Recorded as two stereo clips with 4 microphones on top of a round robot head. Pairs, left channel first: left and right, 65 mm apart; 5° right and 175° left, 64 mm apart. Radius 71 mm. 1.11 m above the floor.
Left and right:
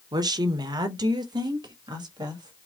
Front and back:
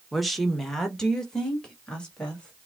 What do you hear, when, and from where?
0.1 s a woman speaking: 100° right, 0.8 m; by 2.7 s 85° right, 2 m